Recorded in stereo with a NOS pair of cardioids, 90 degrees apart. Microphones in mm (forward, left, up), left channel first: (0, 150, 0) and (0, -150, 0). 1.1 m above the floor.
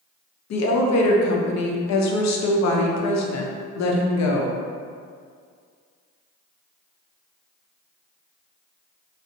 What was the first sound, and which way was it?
A woman speaking, 60° left.